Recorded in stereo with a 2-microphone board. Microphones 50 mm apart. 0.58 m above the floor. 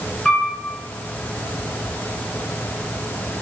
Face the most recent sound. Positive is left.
turn(degrees=10)  # may be behind; listen again after turning